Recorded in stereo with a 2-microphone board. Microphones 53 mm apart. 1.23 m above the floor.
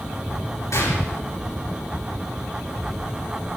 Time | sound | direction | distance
0.7 | a gunshot | 75° left (ahead or behind) | 6.5 m